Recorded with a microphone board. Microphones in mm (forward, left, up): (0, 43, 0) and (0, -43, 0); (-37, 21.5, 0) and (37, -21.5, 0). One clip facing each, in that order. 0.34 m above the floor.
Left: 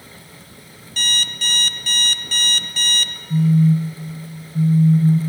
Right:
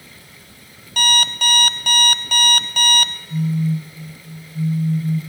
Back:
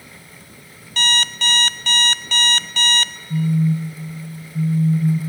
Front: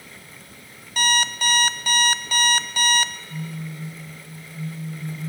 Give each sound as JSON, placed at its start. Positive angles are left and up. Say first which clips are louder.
{"t": 1.0, "sound": "an alarm clock", "louder": "right 7 dB, front 1 dB", "azimuth_deg": -110, "distance_m": 0.5}
{"t": 3.3, "sound": "a phone buzzing", "louder": "left 7 dB, back 14 dB", "azimuth_deg": 95, "distance_m": 2.5}